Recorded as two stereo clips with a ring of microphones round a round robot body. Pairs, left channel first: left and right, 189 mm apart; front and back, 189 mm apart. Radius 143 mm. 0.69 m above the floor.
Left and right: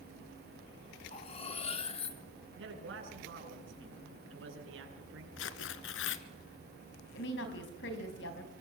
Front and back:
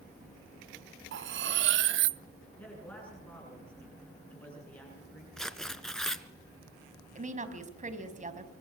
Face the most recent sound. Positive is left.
turn(degrees=130)